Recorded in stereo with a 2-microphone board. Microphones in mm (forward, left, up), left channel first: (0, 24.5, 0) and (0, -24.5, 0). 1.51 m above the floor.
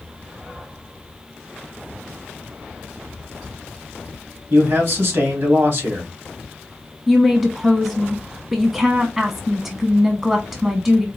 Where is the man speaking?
55° right (ahead or behind), 3 m.